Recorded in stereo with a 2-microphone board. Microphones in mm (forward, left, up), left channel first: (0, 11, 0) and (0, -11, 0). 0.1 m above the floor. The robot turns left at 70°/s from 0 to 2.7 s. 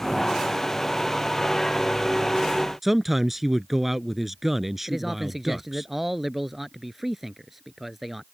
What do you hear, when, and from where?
2.8 s a man speaking: 10° right (ahead or behind)
4.9 s a man speaking: 10° right (ahead or behind)